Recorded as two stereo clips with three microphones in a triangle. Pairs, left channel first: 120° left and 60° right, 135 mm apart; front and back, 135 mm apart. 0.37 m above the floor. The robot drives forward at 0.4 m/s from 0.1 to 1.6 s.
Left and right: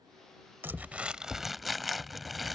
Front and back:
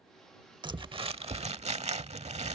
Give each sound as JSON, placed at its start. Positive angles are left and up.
{"t": 0.6, "sound": "crumpling", "azimuth_deg": -130}